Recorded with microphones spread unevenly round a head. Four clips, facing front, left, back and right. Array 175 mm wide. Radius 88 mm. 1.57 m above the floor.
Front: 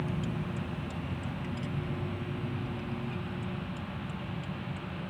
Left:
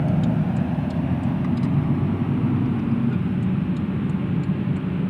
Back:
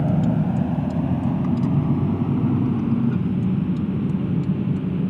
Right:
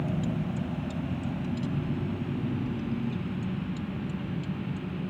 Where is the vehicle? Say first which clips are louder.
Left 9 dB, back 14 dB; 155° left.